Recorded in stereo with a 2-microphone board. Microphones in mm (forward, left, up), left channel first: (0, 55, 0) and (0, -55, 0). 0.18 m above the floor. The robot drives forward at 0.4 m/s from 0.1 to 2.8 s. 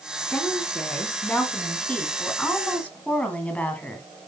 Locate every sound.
0.3 s a woman speaking: 10° left (ahead or behind), 2 m; by 4.1 s 15° left (ahead or behind), 1.5 m